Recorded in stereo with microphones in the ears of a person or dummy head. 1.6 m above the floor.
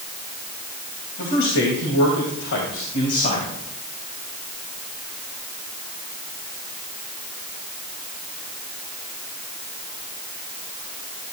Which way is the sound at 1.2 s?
60° left (ahead or behind).